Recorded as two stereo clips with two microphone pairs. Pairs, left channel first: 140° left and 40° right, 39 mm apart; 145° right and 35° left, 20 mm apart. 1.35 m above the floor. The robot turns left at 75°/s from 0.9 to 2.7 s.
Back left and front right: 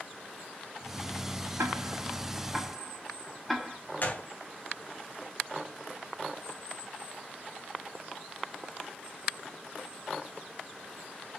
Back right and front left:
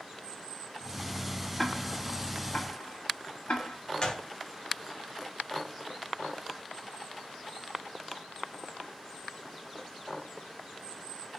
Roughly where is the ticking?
Ahead right.